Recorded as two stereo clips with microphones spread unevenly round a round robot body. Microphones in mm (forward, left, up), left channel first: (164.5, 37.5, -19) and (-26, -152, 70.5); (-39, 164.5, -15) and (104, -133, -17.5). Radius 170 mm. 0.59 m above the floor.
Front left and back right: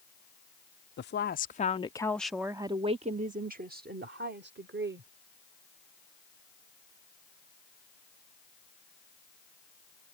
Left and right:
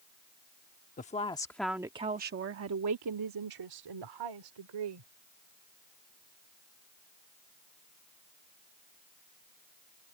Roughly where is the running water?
No running water in this recording.